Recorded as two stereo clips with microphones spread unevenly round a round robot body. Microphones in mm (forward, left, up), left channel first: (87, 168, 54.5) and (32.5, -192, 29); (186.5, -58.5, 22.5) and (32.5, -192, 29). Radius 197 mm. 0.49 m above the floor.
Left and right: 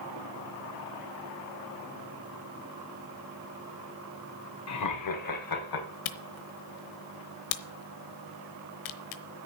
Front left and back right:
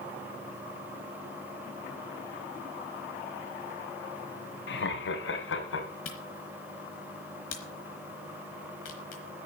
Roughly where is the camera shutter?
Left.